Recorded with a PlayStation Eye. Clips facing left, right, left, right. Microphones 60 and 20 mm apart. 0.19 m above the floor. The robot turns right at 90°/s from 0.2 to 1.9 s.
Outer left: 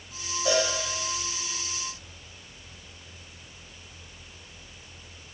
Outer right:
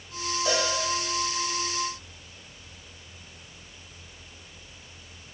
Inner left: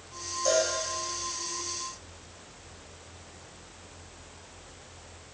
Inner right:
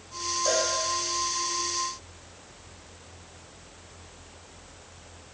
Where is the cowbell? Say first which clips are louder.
Outer left 3 dB, inner left 1 dB; centre (ahead or behind), 4.5 m; by 0.7 s 25° right (ahead or behind), 4.5 m.